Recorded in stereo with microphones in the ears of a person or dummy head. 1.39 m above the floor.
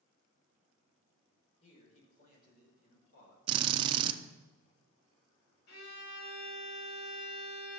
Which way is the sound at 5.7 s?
60° left (ahead or behind).